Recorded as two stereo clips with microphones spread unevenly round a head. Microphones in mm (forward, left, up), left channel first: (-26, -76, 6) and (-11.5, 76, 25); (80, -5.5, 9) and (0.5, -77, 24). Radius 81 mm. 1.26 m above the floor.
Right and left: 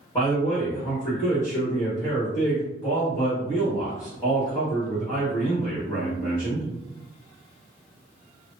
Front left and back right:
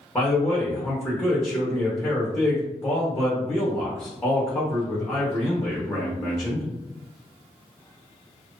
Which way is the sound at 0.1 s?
25° right.